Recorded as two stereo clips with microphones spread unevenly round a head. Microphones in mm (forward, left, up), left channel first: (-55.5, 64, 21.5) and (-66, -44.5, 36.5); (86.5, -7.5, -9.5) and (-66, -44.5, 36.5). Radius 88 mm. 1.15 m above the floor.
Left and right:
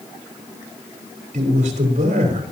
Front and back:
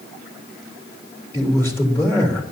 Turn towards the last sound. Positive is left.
turn(degrees=-65)